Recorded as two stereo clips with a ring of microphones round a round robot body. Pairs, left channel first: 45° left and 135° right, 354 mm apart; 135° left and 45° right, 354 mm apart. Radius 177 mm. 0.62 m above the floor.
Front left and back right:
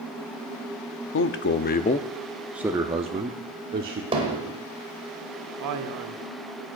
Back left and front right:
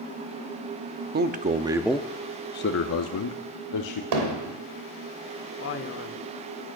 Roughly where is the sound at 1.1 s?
Ahead.